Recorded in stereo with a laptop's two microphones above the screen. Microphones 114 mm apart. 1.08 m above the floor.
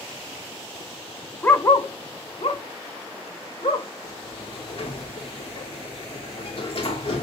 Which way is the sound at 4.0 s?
55° left (ahead or behind).